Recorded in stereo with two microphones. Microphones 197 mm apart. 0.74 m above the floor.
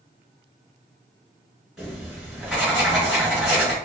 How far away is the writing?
About 1.3 m.